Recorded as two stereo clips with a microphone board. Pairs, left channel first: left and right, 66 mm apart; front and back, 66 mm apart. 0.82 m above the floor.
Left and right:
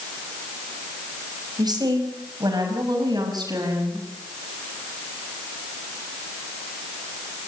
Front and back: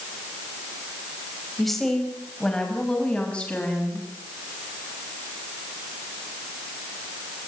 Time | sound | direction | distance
1.6 | a woman speaking | 85° right | 5 m